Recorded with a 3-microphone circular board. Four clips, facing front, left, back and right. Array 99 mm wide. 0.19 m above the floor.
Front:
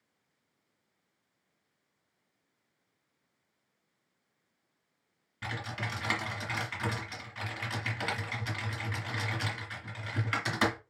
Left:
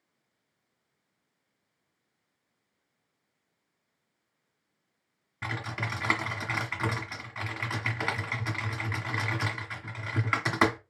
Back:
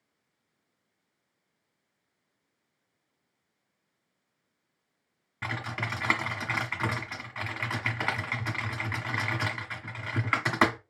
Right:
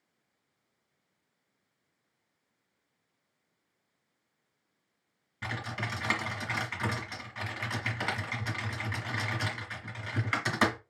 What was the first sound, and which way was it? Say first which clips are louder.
Typing on a keyboard: left 2 dB, back 3 dB; 155° left.